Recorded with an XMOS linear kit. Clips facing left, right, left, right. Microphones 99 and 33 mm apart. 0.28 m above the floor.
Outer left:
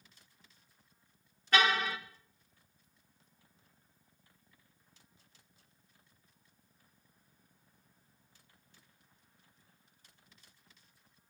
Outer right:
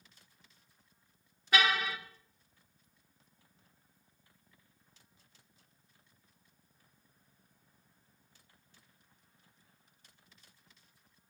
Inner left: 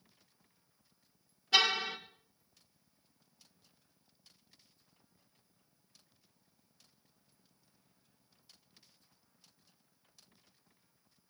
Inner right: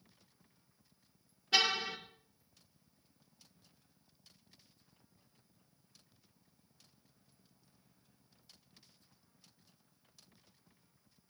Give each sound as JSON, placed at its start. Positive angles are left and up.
{"t": 1.5, "sound": "a car horn", "side_deg": -5, "distance_m": 3.5}